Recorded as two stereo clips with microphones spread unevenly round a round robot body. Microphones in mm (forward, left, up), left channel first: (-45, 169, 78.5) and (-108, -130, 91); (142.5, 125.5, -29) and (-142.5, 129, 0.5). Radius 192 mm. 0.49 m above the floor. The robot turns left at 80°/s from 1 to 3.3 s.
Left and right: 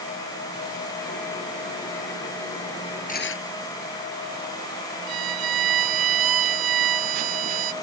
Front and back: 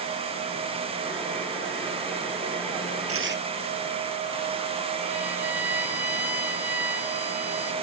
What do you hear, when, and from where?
3.1 s tearing paper: 145° left; by 3.5 s 125° left
5.1 s a violin: 95° right